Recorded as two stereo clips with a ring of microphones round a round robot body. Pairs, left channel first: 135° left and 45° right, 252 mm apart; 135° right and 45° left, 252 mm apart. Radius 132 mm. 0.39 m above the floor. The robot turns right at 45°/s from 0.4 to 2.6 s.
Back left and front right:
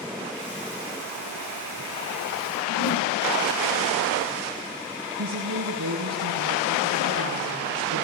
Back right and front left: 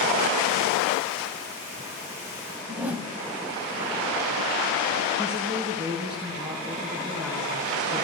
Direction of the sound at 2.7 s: 130° left.